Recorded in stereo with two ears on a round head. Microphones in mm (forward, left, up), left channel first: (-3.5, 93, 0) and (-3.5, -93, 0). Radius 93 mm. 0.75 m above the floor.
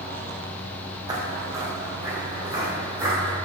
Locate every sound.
1.1 s footsteps: 20° right (ahead or behind), 2 m; by 3.4 s 10° right (ahead or behind), 5 m